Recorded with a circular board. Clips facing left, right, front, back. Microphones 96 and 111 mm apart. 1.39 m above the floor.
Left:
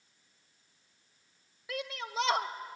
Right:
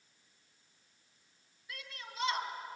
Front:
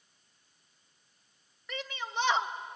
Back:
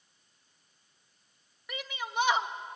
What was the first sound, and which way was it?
A shout, 100° left.